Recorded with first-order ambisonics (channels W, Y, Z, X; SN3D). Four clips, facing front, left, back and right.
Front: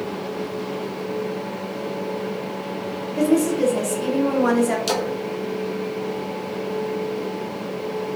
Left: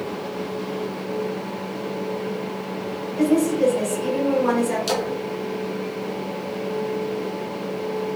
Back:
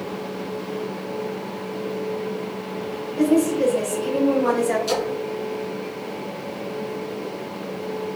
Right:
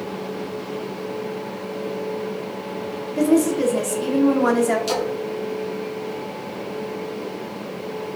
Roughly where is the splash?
Ahead.